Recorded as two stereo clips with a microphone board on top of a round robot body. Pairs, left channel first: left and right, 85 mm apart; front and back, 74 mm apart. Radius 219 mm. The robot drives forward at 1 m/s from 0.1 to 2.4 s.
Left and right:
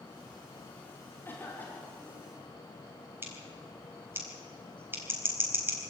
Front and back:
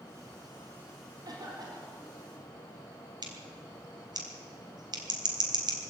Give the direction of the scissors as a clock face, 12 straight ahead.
5 o'clock.